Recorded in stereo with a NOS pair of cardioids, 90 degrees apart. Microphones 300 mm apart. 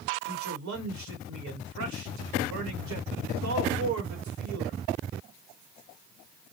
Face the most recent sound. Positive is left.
turn(degrees=-70)